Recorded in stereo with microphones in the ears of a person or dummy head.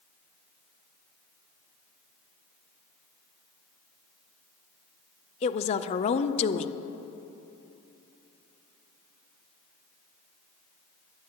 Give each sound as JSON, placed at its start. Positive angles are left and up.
{"t": 5.4, "sound": "a woman speaking", "side_deg": 30, "distance_m": 0.5}